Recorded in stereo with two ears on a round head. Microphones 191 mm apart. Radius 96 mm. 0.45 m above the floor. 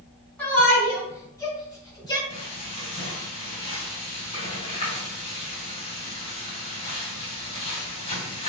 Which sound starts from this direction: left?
Frying, at 2.3 s.